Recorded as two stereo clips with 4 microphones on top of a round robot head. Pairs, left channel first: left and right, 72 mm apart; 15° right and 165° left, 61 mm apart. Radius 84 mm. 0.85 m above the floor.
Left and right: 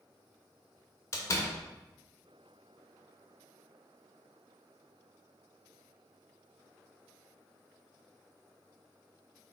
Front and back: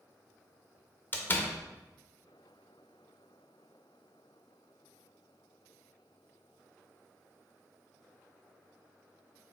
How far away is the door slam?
About 0.7 m.